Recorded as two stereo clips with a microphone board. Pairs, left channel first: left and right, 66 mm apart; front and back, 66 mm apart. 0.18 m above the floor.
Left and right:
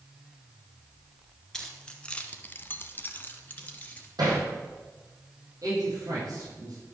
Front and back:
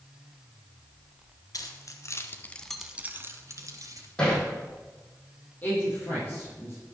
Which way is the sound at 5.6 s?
65° right.